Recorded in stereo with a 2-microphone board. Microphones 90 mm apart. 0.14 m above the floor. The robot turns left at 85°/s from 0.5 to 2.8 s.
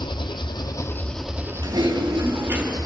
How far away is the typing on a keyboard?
About 3.5 m.